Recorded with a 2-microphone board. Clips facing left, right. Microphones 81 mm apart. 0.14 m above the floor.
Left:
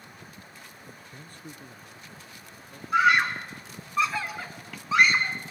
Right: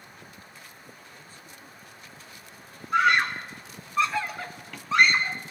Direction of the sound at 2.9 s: Centre (ahead or behind).